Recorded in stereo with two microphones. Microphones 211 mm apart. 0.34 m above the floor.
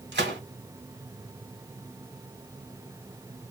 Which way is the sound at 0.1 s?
55° right (ahead or behind).